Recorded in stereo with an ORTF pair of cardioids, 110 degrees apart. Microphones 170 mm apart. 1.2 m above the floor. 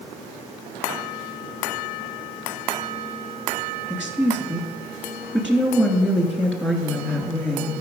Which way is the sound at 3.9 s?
5° right.